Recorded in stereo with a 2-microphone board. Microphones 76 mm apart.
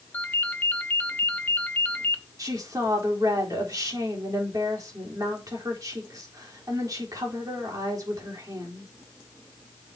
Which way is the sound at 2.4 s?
50° right (ahead or behind).